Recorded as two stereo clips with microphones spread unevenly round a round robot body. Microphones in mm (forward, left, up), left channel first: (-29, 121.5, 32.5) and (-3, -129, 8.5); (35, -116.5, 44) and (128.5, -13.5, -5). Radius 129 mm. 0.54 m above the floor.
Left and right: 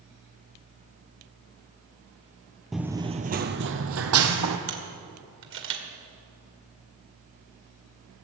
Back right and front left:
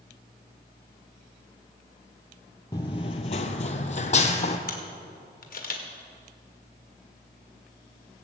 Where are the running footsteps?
175° right, 0.8 m; by 4.6 s 110° right, 1.7 m.